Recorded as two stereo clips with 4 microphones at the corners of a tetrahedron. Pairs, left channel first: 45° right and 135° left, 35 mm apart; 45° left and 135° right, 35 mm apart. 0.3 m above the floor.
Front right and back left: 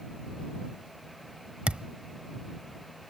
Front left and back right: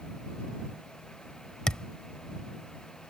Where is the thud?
95° left.